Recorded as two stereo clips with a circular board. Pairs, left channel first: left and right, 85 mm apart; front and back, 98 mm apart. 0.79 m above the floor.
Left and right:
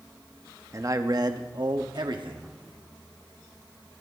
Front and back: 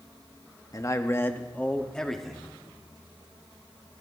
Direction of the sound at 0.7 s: 45° right.